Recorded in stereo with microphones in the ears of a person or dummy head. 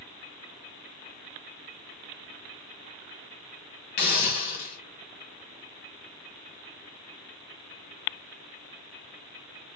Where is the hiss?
40° left (ahead or behind), 1.4 m.